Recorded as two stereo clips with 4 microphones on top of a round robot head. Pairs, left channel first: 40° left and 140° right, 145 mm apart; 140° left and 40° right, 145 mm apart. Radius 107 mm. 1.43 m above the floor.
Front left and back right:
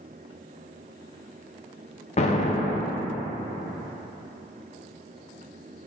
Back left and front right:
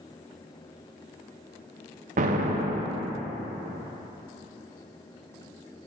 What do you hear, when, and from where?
2.2 s an explosion: 5° right, 0.6 m